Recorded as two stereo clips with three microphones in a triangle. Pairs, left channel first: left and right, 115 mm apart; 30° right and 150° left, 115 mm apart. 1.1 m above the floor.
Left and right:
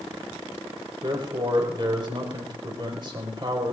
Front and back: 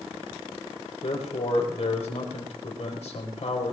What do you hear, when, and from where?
1.0 s a man speaking: 45° right, 5 m